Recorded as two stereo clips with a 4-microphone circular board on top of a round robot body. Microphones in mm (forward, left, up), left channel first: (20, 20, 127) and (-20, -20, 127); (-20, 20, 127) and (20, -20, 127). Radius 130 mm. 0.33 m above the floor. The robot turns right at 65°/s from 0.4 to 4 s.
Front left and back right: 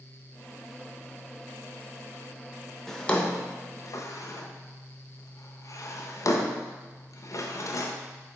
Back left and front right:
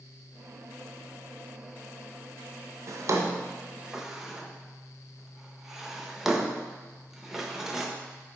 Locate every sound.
2.9 s a drawer: 35° right, 0.6 m; by 7.9 s 35° left, 0.6 m